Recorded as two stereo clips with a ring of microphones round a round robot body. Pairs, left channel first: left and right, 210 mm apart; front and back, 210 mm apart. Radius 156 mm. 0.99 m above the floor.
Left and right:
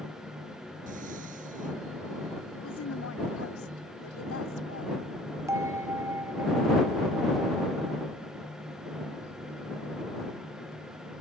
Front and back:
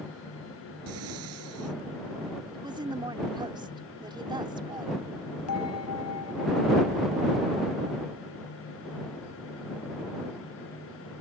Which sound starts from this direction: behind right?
Breathing, at 0.9 s.